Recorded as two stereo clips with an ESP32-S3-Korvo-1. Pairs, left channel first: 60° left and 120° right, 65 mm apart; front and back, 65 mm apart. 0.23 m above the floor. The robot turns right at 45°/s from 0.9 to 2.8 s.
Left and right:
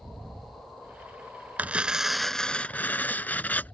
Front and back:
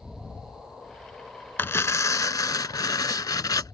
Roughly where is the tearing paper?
Ahead right.